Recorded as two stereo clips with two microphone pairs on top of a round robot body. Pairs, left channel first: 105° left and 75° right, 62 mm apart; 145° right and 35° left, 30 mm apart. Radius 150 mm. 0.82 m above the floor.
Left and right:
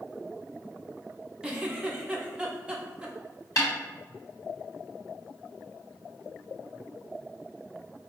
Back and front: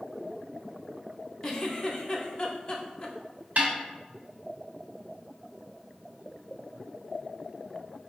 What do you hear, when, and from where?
1.4 s a giggle: 135° right, 1.0 m
3.6 s a snare drum: 70° left, 1.1 m